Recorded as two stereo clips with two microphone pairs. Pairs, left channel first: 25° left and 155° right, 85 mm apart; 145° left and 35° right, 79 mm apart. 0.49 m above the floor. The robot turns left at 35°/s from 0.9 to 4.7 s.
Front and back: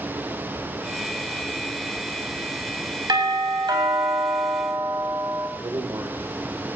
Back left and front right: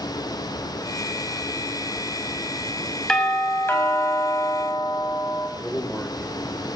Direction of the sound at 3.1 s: 135° right.